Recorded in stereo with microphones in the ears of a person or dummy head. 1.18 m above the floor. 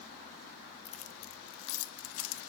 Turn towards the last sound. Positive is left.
turn(degrees=85)